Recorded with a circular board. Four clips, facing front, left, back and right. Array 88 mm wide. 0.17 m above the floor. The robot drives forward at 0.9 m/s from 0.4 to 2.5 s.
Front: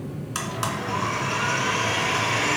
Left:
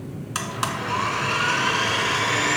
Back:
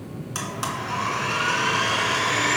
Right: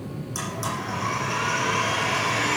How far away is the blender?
About 1.7 m.